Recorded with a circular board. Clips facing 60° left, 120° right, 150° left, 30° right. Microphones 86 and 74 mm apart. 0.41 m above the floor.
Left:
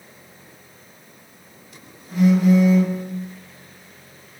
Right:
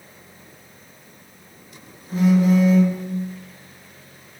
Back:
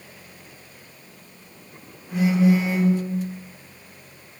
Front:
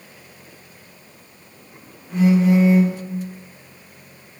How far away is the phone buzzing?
About 1.5 m.